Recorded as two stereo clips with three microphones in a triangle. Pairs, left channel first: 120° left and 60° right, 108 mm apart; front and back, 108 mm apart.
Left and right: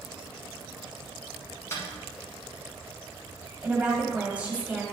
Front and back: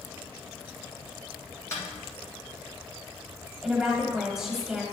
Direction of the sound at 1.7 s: 60° left.